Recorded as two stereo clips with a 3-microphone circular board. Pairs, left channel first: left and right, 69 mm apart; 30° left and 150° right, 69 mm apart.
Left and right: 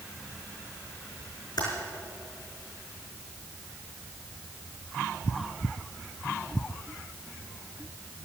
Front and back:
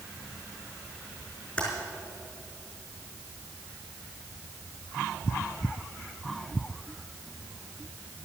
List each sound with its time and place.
1.6 s typing on a keyboard: 100° left, 5 m